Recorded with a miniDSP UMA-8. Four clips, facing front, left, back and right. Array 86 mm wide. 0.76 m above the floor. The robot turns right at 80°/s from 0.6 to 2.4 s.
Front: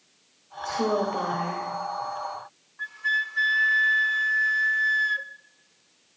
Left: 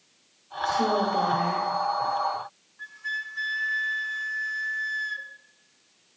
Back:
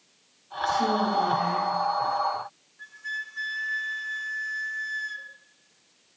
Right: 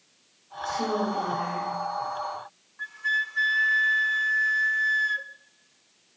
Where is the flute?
35° right, 0.7 m.